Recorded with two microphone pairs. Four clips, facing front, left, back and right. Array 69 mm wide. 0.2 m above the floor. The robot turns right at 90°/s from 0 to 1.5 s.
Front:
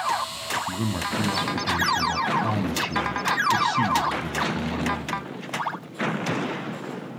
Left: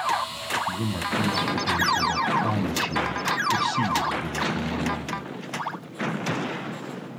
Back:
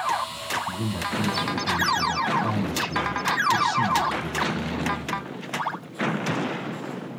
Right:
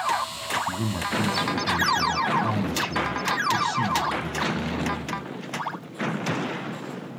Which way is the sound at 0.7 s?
35° right.